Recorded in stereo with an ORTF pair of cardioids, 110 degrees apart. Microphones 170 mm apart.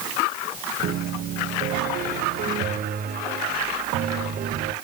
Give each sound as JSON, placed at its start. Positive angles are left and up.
{"t": 0.8, "sound": "a piano", "azimuth_deg": -65, "distance_m": 1.2}